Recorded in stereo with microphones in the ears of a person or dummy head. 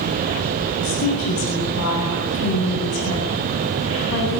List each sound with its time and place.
0.8 s a woman speaking: 85° left, 9.5 m